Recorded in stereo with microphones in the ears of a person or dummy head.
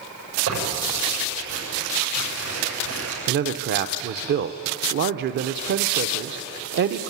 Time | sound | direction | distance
0.5 | tearing paper | 80° right | 7 m
3.3 | a man speaking | 55° right (ahead or behind) | 0.6 m